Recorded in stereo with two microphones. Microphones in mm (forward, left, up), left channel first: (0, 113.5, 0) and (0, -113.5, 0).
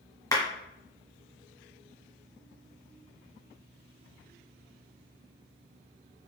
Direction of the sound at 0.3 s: 15° left (ahead or behind).